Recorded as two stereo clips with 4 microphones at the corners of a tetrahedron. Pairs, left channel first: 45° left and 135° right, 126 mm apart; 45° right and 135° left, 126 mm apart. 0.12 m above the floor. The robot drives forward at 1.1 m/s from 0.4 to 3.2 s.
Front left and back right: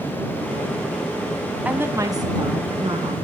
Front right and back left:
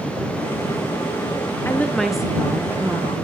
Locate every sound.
1.6 s a woman speaking: 75° right, 1.1 m; by 3.1 s 165° right, 1.9 m